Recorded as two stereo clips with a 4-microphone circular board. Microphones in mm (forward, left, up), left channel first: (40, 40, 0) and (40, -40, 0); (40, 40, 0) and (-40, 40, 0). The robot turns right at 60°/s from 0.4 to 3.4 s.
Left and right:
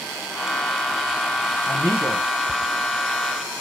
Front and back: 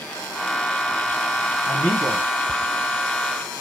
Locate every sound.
1.7 s a man speaking: 30° left, 1.3 m; by 2.3 s 65° left, 1.3 m